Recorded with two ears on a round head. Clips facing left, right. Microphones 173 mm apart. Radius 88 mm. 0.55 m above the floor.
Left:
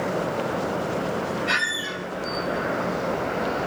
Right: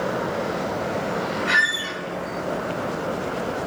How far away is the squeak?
About 1.1 m.